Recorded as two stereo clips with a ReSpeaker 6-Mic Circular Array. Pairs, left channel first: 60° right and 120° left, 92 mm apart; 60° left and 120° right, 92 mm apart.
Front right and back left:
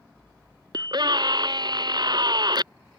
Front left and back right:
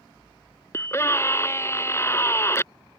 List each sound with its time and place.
0.7 s a scream: 110° left